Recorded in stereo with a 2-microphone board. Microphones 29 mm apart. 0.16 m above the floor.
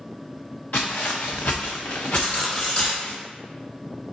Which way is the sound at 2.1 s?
30° left (ahead or behind).